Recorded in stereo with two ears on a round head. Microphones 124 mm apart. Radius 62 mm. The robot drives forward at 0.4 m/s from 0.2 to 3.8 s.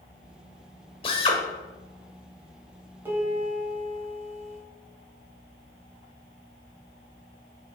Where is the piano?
15° right (ahead or behind), 3.5 m.